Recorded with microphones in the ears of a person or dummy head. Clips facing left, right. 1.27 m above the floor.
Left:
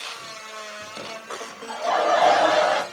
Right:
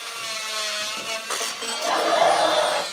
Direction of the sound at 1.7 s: 40° right (ahead or behind).